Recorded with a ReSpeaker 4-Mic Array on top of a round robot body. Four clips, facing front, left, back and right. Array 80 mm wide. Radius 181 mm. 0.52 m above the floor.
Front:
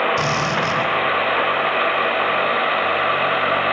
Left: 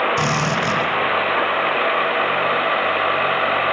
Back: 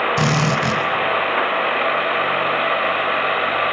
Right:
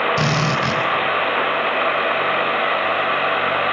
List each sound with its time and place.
0.2 s a drill: 150° right, 4 m